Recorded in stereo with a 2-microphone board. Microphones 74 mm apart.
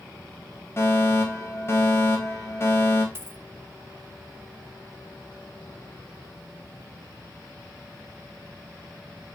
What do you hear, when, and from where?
0.8 s a fire alarm: 35° left (ahead or behind), 3.5 m
3.1 s a dropped coin: 35° right (ahead or behind), 0.8 m